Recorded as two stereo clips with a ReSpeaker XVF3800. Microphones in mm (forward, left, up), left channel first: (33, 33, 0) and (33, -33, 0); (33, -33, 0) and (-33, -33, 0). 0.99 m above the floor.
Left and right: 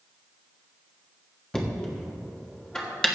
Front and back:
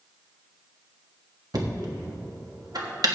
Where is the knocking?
170° left, 1.5 m.